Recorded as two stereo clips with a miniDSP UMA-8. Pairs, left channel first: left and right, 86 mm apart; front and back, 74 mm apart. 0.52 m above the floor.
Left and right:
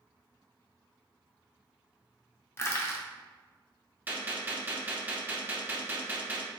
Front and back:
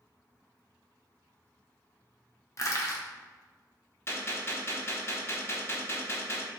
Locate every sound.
2.6 s crushing: 35° left, 0.6 m
4.1 s a gunshot: 35° right, 0.6 m